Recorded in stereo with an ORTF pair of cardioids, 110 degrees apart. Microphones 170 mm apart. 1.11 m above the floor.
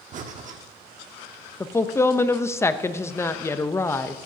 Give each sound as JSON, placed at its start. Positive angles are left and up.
{"t": 0.1, "sound": "breathing", "azimuth_deg": -50, "distance_m": 1.3}
{"t": 1.6, "sound": "a woman speaking", "azimuth_deg": 15, "distance_m": 0.7}